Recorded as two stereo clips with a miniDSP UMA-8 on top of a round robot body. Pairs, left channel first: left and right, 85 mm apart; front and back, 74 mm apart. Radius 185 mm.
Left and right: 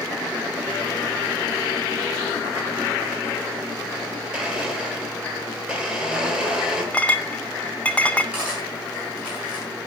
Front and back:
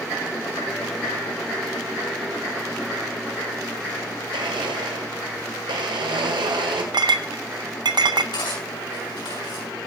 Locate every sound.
4.3 s a blender: 170° right, 1.5 m
6.9 s a clink: 165° left, 0.6 m
8.3 s cutlery clinking: 10° right, 7.5 m